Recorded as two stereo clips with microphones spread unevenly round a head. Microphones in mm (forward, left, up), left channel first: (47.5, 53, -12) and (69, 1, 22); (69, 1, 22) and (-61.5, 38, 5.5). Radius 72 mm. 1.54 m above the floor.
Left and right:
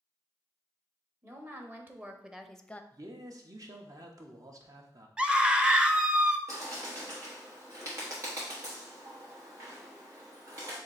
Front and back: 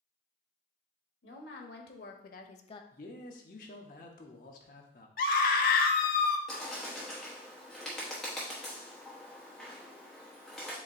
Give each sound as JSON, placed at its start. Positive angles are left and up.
{"t": 1.2, "sound": "a woman speaking", "azimuth_deg": -25, "distance_m": 1.3}
{"t": 2.9, "sound": "a man speaking", "azimuth_deg": -55, "distance_m": 0.8}
{"t": 5.2, "sound": "a scream", "azimuth_deg": -10, "distance_m": 0.7}
{"t": 6.5, "sound": "a bird", "azimuth_deg": -100, "distance_m": 1.0}